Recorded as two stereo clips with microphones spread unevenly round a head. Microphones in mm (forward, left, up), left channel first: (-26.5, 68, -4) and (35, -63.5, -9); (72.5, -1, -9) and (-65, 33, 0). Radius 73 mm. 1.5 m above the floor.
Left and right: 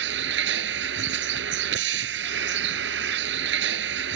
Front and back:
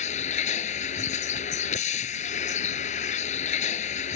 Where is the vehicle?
60° right.